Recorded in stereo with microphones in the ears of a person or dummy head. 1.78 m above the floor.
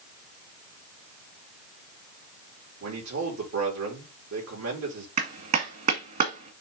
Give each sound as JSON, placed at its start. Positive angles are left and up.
{"t": 2.8, "sound": "a man speaking", "side_deg": -85, "distance_m": 4.0}
{"t": 5.2, "sound": "a clap", "side_deg": -40, "distance_m": 1.7}